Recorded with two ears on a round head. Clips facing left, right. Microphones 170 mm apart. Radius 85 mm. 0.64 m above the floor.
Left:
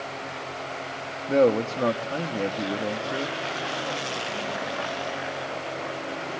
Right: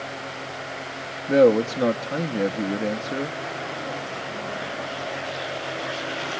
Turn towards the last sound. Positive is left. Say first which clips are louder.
# right 4 dB
turn(degrees=-15)  # may be behind; listen again after turning